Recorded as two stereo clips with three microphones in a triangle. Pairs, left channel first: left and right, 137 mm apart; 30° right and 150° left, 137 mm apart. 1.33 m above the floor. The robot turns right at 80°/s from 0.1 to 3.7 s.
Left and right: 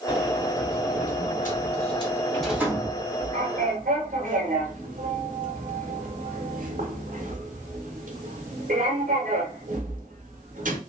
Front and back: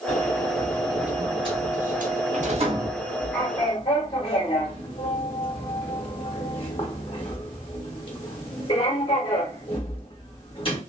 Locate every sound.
0.1 s a sliding door: 10° right, 1.0 m; by 10.8 s 80° right, 1.0 m